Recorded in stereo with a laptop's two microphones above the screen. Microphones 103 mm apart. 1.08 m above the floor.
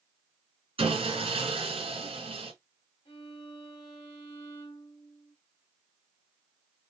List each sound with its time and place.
0.8 s sawing: 65° right (ahead or behind), 2.5 m
3.0 s a violin: 75° left (ahead or behind), 2.5 m